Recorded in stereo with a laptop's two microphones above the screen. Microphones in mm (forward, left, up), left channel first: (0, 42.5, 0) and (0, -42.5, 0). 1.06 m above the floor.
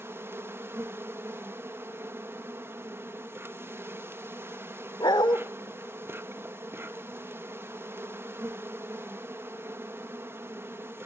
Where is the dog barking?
60° left (ahead or behind), 1.1 m.